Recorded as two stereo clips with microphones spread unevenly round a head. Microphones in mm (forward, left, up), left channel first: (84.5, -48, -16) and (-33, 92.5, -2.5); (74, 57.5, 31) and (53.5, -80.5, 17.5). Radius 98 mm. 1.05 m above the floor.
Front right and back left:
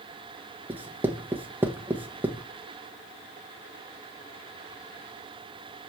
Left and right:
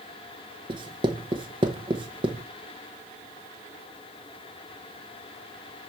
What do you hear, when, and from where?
0.7 s writing: 150° right, 0.9 m